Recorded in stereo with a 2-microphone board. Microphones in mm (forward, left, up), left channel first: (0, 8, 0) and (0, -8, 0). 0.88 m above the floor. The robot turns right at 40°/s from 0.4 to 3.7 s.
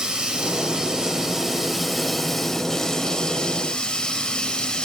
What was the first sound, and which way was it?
Running water, 65° right.